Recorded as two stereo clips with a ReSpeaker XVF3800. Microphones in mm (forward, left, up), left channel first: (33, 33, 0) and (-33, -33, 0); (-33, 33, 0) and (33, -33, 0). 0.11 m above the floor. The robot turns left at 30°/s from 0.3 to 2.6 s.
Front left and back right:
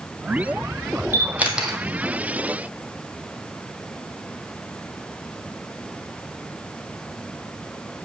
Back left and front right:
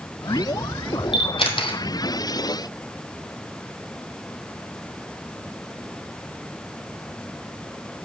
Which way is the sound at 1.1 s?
160° left.